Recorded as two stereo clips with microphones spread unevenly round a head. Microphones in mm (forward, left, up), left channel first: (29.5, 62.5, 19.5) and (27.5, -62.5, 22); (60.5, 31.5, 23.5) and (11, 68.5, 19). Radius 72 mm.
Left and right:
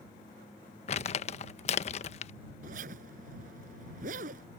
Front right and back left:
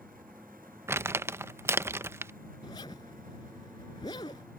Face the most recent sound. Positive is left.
turn(degrees=-80)